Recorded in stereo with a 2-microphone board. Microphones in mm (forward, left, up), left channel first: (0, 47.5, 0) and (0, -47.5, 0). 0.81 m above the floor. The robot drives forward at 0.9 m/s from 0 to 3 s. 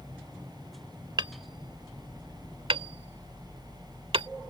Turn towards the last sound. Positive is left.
turn(degrees=-75)  # may be behind; listen again after turning